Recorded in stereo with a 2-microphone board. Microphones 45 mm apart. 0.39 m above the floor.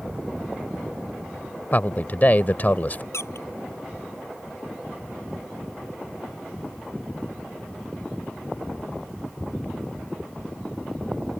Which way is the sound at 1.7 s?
40° left (ahead or behind).